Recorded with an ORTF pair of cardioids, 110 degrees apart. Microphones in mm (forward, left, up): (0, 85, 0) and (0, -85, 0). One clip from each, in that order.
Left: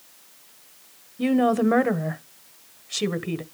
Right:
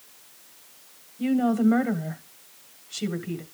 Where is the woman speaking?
45° left, 1.5 m.